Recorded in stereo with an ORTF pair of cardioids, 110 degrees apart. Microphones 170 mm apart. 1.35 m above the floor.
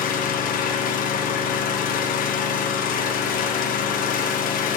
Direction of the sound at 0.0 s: 65° left.